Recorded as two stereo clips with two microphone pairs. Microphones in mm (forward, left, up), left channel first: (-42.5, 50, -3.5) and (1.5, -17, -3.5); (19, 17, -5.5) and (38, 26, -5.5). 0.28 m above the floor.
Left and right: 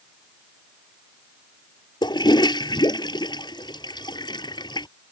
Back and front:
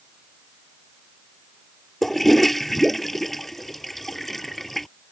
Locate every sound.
2.0 s a toilet flushing: 125° left